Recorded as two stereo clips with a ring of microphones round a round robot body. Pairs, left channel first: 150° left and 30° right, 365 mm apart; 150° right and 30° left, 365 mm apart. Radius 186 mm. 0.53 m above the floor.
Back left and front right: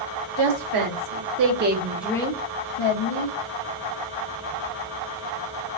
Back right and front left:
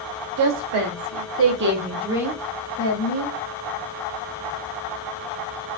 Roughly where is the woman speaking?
Ahead.